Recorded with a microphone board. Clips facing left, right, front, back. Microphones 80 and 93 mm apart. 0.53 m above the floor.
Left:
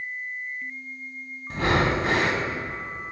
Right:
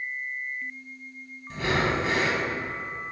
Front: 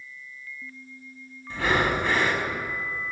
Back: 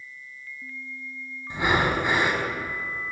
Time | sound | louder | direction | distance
1.5 | breathing | left 3 dB, back 1 dB | 110° left | 0.6 m